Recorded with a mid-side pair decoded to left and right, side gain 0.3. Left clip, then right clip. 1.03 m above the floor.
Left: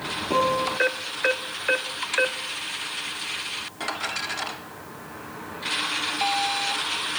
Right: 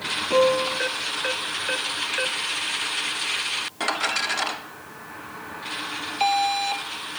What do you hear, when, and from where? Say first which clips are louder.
0.3 s a piano: right 3 dB; 40° left, 1.8 m